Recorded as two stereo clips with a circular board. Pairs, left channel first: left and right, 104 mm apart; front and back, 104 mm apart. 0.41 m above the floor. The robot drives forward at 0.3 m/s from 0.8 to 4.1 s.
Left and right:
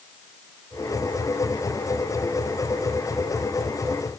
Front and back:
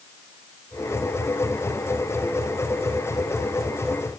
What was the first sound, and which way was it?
Only background noise.